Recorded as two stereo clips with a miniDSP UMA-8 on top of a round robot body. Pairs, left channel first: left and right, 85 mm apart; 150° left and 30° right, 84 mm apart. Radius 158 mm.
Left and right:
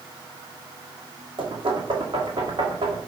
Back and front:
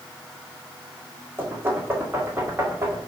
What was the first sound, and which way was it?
Knocking, 95° right.